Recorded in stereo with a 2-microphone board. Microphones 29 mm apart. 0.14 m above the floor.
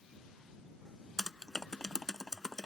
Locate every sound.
1.2 s typing on a keyboard: 20° left (ahead or behind)